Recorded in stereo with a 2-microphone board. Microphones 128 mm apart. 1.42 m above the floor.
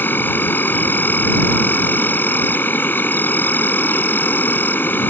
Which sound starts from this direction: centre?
An insect, at 0.0 s.